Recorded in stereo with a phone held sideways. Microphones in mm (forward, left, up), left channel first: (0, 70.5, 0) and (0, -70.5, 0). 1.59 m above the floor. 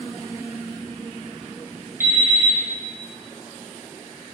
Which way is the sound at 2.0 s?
20° right (ahead or behind).